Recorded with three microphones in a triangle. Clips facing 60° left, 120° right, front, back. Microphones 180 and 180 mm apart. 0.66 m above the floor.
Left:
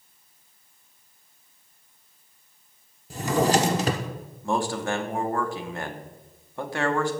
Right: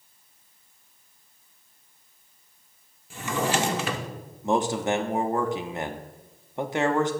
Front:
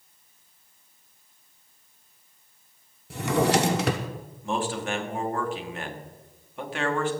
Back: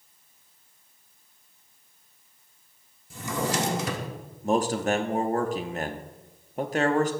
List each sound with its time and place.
3.1 s a drawer: 10° left, 1.0 m
4.4 s a man speaking: straight behind, 0.9 m